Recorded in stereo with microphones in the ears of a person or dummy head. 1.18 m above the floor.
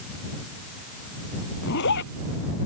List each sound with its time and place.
1.6 s a zipper: 60° left (ahead or behind)